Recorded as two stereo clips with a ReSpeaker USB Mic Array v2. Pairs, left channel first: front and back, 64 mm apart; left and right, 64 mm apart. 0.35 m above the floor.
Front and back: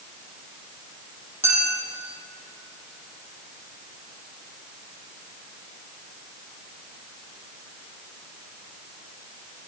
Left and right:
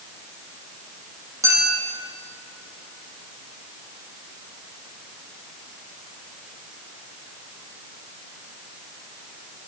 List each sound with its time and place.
1.4 s a clink: 125° right, 6.5 m